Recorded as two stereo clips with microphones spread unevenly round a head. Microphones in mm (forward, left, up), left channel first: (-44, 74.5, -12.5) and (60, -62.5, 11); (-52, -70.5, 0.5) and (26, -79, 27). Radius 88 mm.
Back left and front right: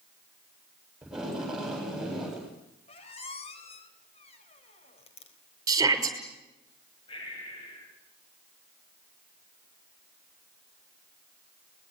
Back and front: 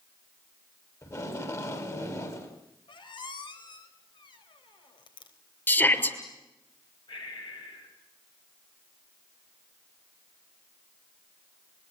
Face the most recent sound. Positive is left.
turn(degrees=-170)